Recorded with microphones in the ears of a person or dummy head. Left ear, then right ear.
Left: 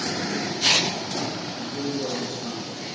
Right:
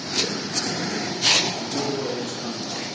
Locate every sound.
1.6 s a man speaking: 75° right (ahead or behind), 1.7 m